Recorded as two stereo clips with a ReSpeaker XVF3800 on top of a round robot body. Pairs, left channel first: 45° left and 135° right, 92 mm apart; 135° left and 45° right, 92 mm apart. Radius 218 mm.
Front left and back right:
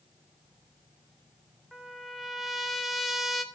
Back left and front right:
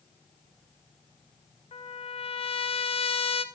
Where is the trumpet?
135° left, 0.9 m.